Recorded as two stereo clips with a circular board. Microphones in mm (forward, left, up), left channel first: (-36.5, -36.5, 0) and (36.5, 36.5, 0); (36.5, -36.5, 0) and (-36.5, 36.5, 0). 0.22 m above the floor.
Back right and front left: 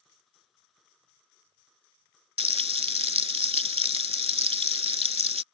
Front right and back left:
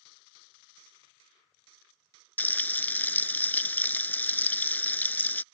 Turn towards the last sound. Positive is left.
turn(degrees=25)